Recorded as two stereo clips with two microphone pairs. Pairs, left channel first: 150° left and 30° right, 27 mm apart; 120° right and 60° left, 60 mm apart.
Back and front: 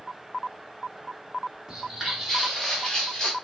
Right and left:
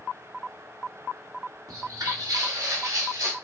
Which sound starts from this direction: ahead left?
Footsteps, at 1.7 s.